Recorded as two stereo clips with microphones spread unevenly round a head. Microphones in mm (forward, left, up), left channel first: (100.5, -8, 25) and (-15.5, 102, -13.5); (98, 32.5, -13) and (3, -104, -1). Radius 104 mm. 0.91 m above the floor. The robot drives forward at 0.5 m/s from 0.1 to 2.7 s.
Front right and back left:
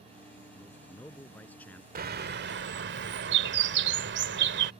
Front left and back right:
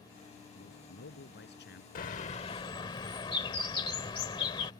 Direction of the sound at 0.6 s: 35° left.